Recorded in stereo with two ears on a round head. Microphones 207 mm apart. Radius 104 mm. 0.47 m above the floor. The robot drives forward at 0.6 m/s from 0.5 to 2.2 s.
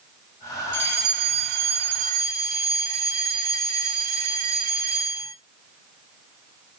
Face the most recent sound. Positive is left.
turn(degrees=-45)  # may be behind; listen again after turning